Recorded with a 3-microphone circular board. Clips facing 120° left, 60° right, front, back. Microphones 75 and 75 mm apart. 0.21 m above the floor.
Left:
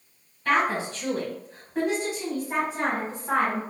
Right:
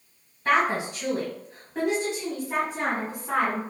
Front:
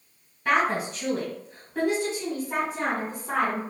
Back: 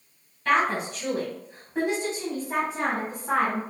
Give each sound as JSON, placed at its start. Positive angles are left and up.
{"t": 0.5, "sound": "a woman speaking", "azimuth_deg": -55, "distance_m": 1.5}